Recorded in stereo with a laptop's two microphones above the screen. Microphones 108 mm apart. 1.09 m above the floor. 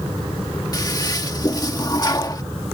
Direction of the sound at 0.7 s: 35° left (ahead or behind).